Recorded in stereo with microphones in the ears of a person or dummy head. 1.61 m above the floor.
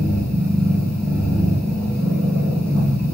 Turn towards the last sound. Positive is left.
turn(degrees=5)  # may be behind; listen again after turning